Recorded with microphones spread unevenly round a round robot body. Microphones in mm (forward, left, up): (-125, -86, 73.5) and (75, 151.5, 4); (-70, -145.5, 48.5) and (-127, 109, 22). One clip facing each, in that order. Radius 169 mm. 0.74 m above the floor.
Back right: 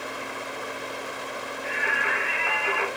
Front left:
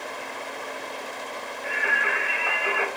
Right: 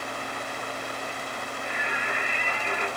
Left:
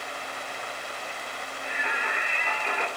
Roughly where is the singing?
Ahead left.